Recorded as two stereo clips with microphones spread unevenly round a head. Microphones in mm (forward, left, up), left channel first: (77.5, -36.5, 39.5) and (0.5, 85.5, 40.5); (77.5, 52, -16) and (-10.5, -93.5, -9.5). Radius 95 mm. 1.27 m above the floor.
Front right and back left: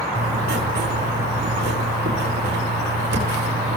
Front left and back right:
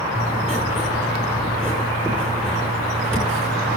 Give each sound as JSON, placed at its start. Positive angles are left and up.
{"t": 0.1, "sound": "writing", "azimuth_deg": 145, "distance_m": 8.0}